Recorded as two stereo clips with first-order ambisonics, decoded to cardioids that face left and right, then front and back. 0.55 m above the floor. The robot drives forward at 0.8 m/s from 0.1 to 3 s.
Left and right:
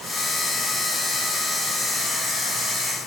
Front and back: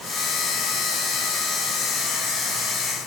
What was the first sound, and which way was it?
Only background noise.